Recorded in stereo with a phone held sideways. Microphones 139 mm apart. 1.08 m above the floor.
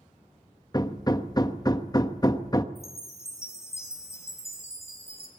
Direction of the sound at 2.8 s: 20° left (ahead or behind).